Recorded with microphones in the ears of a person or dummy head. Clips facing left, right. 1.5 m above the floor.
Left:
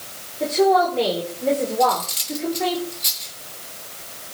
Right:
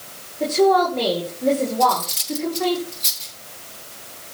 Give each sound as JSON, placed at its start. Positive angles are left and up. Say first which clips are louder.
{"t": 0.4, "sound": "a woman speaking", "louder": "right 1 dB", "side_deg": 0, "distance_m": 6.0}
{"t": 1.8, "sound": "cutlery clinking", "louder": "even", "side_deg": 5, "distance_m": 3.0}